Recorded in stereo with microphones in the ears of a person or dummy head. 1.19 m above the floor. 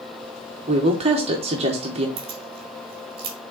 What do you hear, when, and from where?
0.7 s a woman speaking: 30° right (ahead or behind), 0.9 m
2.2 s keys jangling: 30° right (ahead or behind), 1.6 m